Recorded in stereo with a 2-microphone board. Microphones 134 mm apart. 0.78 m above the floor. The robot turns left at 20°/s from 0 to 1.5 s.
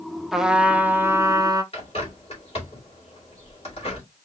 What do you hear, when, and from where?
0.3 s a trumpet: 5° right (ahead or behind), 0.6 m; by 1.6 s 25° right (ahead or behind), 0.6 m
1.7 s a bird: 45° left (ahead or behind), 2.5 m